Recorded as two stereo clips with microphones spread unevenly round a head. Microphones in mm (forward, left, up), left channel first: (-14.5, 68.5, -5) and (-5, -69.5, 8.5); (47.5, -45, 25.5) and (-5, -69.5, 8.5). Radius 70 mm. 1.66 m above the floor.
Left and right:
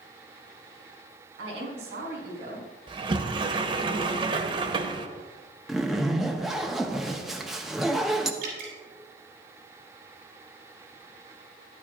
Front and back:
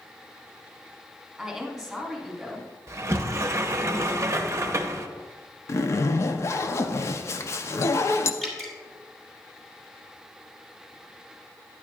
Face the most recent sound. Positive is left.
turn(degrees=-60)